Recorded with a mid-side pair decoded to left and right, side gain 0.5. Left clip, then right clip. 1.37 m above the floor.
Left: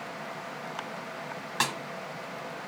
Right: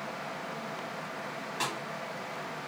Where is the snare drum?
65° left, 0.8 m.